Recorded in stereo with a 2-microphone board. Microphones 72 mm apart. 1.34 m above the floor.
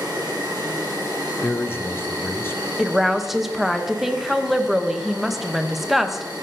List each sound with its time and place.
0.0 s an insect: 70° right (ahead or behind), 3.5 m
1.4 s a man speaking: 30° left (ahead or behind), 0.7 m
2.8 s a woman speaking: 5° right (ahead or behind), 0.9 m